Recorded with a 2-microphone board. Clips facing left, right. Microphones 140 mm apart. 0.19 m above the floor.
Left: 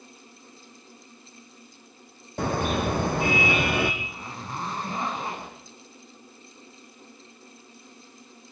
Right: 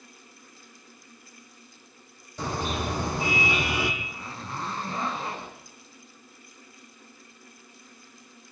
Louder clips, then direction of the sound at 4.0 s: Left 1 dB; 20° left (ahead or behind).